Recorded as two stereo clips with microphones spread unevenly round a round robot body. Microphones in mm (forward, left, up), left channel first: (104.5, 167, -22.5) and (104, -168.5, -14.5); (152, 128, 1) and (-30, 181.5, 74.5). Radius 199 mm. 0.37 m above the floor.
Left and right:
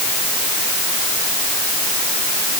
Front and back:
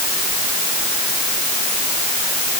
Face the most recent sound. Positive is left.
No sound to turn to.